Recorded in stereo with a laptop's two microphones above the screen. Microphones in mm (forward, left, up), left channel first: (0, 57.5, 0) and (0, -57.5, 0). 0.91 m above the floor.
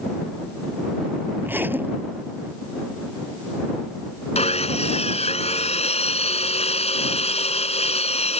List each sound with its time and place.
1.4 s a zipper: 20° right (ahead or behind)
4.3 s sawing: 75° left (ahead or behind)